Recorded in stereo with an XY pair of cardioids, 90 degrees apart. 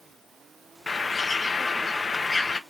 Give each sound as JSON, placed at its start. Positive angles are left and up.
{"t": 0.9, "sound": "a bird", "azimuth_deg": 30, "distance_m": 0.9}